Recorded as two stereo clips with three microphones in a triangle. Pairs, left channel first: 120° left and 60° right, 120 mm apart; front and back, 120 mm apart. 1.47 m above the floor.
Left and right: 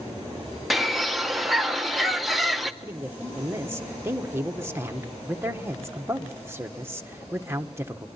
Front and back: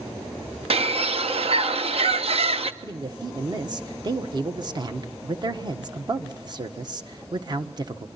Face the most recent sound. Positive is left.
turn(degrees=-130)